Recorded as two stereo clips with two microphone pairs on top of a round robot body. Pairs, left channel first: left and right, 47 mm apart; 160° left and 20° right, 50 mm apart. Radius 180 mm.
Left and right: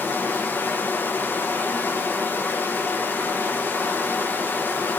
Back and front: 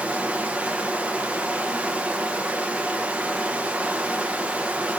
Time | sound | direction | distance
0.0 | running water | 45° left | 0.8 m